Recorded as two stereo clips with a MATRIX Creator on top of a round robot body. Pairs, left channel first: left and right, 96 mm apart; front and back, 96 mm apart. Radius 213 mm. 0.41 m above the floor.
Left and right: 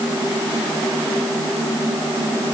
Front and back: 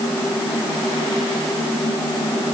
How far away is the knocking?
No knocking in this recording.